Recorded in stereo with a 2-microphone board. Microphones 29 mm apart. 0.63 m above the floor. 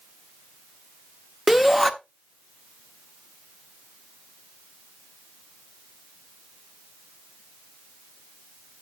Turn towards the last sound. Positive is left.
turn(degrees=-5)  # may be behind; listen again after turning